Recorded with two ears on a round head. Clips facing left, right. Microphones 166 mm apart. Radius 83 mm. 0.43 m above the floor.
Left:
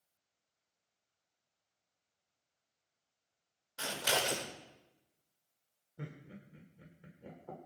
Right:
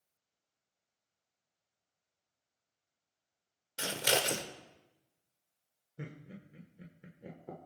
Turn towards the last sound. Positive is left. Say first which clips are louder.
# right 1 dB
turn(degrees=-20)  # may be behind; listen again after turning